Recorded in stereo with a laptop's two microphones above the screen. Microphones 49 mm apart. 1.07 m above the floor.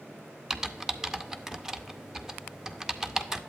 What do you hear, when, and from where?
0.5 s typing on a keyboard: 10° right (ahead or behind), 0.5 m